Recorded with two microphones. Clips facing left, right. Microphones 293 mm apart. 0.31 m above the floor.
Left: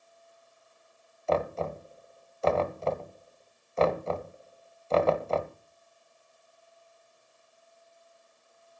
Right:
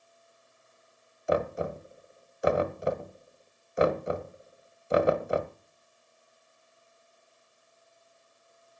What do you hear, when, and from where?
1.3 s knocking: 15° right (ahead or behind), 1.0 m